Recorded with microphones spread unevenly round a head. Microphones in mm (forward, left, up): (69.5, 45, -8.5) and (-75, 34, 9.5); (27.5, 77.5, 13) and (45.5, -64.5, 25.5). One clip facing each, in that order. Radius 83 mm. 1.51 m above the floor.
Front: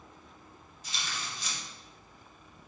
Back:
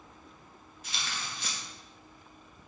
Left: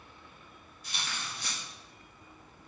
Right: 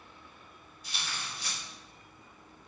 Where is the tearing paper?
150° left, 2 m.